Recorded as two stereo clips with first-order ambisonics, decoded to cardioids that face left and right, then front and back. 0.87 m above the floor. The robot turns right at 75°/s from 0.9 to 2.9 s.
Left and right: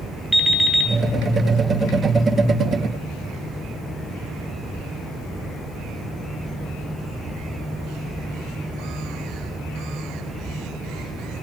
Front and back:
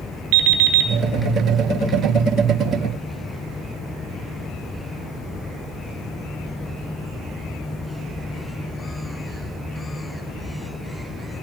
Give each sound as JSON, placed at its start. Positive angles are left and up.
{"t": 0.3, "sound": "an alarm clock", "azimuth_deg": 175, "distance_m": 2.0}